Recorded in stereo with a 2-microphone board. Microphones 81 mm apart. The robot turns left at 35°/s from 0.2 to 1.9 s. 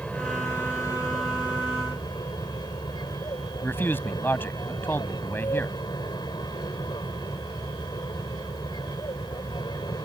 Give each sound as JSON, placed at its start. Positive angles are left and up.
{"t": 0.0, "sound": "an aircraft", "azimuth_deg": 165}
{"t": 3.6, "sound": "a man speaking", "side_deg": 25}